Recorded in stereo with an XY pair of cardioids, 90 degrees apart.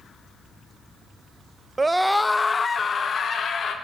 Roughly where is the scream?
Ahead right.